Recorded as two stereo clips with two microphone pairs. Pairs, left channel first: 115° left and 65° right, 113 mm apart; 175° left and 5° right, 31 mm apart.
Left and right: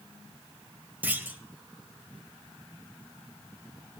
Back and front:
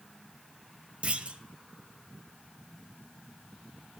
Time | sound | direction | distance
1.0 | a clunk | 5° left | 0.6 m